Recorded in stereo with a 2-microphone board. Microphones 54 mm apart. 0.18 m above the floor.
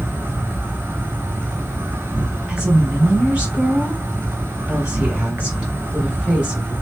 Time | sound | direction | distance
0.0 | an insect | 45° right (ahead or behind) | 0.8 m
2.5 | a woman speaking | 20° right (ahead or behind) | 1.9 m